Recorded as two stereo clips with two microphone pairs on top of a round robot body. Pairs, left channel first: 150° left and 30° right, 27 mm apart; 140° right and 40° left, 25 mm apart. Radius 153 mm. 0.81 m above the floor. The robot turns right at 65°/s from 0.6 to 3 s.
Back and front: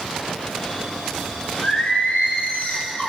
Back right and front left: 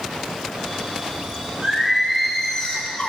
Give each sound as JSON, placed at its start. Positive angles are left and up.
{"t": 1.6, "sound": "singing", "azimuth_deg": 95, "distance_m": 9.0}